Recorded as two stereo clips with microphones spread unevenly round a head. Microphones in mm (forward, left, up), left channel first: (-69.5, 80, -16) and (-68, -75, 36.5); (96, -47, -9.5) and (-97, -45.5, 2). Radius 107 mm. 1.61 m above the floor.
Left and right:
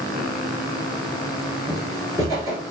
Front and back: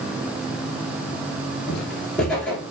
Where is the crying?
I don't hear crying.